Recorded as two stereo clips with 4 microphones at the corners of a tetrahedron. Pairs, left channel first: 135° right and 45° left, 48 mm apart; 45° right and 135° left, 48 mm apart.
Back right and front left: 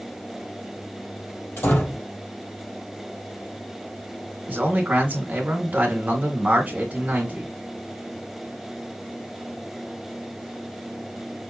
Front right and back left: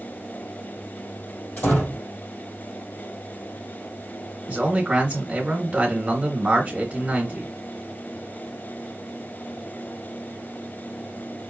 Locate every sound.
1.6 s a door slam: 100° right, 4 m
4.5 s a man speaking: 85° left, 2 m